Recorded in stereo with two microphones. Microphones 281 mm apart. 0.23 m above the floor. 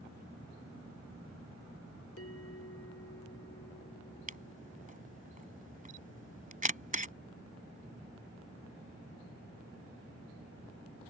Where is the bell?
55° left (ahead or behind).